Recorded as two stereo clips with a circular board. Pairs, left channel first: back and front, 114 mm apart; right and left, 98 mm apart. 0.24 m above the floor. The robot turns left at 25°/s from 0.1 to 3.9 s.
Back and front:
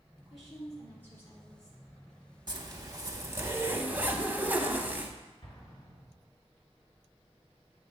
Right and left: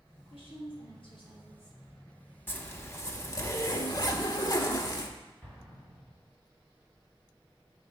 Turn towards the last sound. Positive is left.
turn(degrees=-165)